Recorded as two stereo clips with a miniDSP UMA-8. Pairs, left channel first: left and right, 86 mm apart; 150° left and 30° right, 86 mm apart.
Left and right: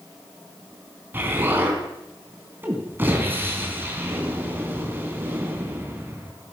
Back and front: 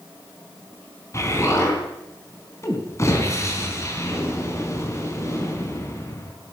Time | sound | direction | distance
1.1 | an explosion | 155° right | 3 m